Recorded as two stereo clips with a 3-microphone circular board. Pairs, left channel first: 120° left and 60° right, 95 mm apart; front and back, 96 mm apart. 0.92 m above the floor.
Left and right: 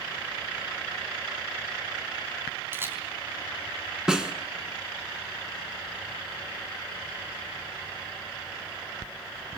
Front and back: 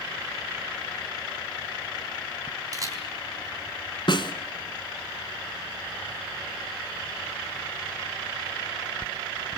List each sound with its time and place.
2.7 s a camera shutter: 125° right, 3.5 m
4.1 s a snare drum: 20° left, 1.6 m